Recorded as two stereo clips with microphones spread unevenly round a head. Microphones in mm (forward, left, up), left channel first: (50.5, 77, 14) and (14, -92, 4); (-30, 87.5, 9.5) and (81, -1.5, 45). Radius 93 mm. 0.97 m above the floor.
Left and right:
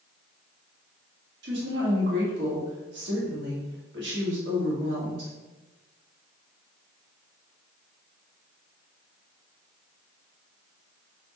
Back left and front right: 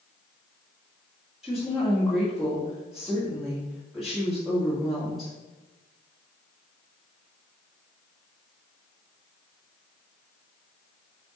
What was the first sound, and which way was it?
A woman speaking, 130° right.